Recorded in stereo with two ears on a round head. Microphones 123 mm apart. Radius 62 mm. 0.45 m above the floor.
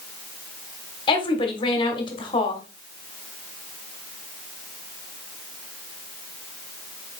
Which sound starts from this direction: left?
A woman speaking, at 1.1 s.